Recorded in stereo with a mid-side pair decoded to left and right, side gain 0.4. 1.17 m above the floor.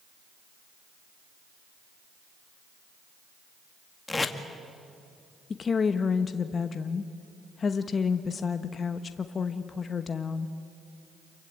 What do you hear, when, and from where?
4.1 s tape being pulled: 25° left, 2 m
5.5 s a woman speaking: 45° left, 1.1 m